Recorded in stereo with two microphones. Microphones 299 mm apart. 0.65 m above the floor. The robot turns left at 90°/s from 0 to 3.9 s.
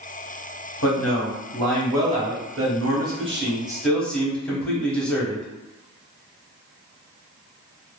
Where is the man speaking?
95° left, 0.8 m; by 5.5 s 175° left, 0.8 m.